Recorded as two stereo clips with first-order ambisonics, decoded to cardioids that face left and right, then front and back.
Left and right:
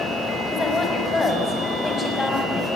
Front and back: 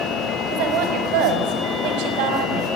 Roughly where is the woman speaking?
Behind.